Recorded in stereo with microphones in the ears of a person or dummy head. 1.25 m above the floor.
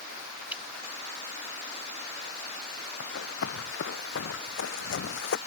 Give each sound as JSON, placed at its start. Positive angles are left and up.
{"t": 0.5, "sound": "dripping", "side_deg": -15}
{"t": 3.0, "sound": "running footsteps", "side_deg": 75}